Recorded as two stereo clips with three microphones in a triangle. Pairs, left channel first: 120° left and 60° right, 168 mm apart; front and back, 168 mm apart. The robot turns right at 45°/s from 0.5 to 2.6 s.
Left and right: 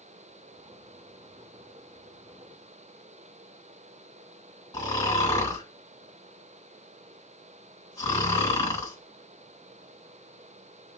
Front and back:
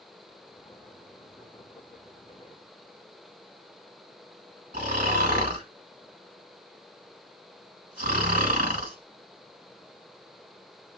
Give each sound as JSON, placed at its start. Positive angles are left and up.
{"t": 4.7, "sound": "snoring", "azimuth_deg": 180, "distance_m": 2.0}